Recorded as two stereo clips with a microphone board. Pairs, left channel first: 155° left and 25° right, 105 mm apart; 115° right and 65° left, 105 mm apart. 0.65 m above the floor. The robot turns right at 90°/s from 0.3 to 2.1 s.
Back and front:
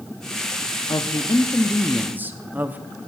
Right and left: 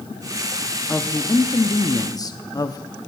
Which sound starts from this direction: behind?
A woman speaking, at 0.9 s.